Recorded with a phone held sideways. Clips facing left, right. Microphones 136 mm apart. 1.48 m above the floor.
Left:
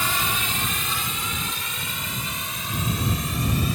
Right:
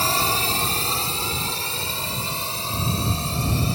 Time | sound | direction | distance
0.0 | a drone | 35° right (ahead or behind) | ?